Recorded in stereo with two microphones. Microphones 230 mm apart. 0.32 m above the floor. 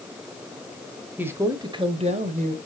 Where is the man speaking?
10° right (ahead or behind), 1.2 m; by 2.6 s 35° right (ahead or behind), 1.4 m.